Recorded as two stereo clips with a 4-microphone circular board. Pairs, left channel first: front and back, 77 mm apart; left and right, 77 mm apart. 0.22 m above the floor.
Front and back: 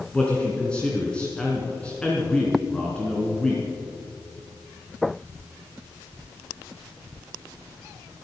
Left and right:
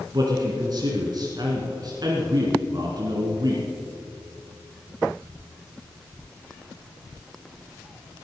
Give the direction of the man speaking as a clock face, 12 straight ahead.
3 o'clock.